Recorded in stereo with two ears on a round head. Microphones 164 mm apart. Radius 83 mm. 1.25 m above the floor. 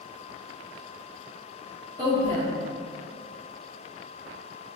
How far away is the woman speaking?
About 1.4 m.